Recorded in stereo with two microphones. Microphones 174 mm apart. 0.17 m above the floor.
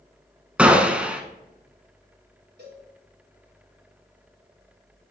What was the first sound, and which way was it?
A gunshot, 5° right (ahead or behind).